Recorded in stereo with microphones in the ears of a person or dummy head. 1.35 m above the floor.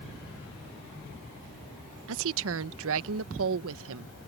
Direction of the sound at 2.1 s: 75° right (ahead or behind).